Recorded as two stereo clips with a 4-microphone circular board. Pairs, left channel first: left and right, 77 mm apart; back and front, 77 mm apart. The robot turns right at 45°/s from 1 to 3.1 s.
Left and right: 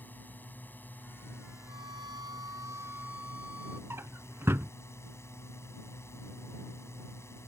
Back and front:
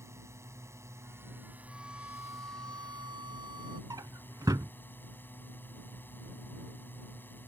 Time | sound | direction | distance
0.0 | a drone | 35° left | ?
1.7 | a violin | 85° right | ?
3.9 | a drawer | 35° right | ?